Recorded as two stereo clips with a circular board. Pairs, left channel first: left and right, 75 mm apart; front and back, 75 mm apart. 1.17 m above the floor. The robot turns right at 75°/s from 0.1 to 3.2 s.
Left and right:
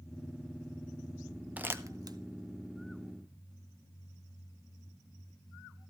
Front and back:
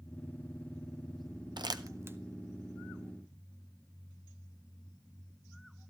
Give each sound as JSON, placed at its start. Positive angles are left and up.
{"t": 1.6, "sound": "crumpling", "azimuth_deg": -160, "distance_m": 0.7}